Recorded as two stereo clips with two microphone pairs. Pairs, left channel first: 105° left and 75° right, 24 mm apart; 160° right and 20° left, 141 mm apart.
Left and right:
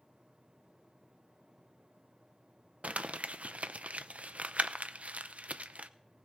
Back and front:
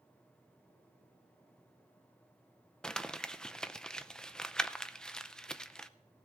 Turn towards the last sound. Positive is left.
turn(degrees=-75)